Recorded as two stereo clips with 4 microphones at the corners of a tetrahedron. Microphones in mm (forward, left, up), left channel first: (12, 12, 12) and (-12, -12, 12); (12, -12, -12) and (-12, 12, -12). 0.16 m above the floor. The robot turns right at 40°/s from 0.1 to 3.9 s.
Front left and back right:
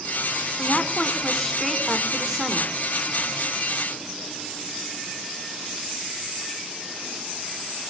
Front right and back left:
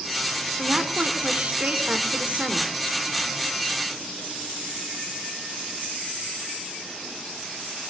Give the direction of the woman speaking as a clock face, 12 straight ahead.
9 o'clock.